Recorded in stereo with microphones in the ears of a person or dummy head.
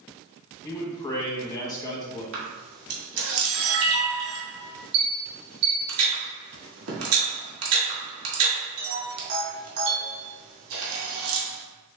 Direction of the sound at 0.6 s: 15° left (ahead or behind).